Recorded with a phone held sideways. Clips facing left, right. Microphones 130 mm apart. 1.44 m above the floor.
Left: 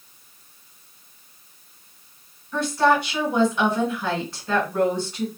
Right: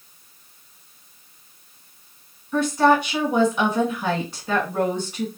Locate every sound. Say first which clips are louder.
2.5 s a woman speaking: right 2 dB; 10° right (ahead or behind), 1.4 m